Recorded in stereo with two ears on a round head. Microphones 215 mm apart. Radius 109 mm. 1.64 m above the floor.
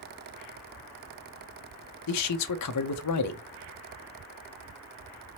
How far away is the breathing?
No breathing in this recording.